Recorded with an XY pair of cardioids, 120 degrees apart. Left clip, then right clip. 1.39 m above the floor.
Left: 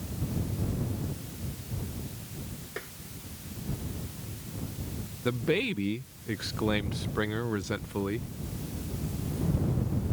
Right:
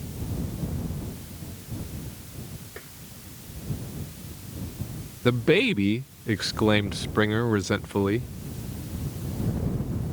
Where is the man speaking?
40° right.